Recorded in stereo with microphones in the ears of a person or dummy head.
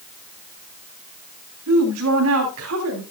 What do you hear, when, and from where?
1.7 s a woman speaking: 80° right, 3 m